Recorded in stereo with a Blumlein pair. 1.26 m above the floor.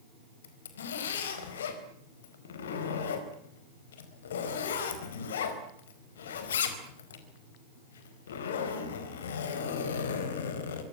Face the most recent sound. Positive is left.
turn(degrees=60)